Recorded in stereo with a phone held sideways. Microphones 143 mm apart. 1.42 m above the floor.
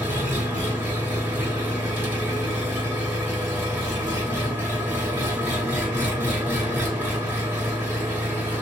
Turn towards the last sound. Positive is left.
turn(degrees=-10)  # may be behind; listen again after turning